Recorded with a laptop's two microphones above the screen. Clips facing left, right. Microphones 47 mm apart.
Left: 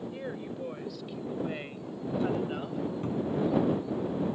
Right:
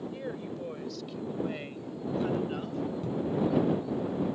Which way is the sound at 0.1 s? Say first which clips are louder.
Even; 10° left (ahead or behind).